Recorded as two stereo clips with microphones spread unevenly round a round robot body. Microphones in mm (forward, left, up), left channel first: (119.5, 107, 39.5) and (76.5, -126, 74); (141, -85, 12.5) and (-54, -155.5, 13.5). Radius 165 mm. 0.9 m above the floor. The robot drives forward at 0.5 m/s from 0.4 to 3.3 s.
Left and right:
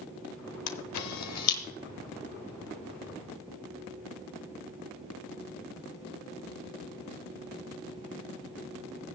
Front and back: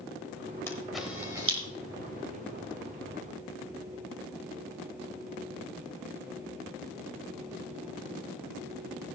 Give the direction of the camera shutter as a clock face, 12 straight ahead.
9 o'clock.